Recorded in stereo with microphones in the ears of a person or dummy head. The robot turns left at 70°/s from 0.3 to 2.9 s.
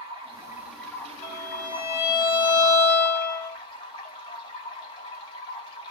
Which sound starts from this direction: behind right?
Running water, at 0.0 s.